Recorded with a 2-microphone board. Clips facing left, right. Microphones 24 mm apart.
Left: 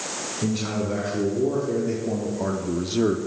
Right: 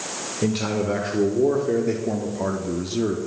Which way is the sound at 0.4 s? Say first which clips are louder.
Right 3 dB; 50° right (ahead or behind).